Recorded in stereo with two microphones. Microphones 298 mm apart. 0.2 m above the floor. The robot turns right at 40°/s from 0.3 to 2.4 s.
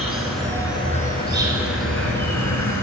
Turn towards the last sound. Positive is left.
turn(degrees=80)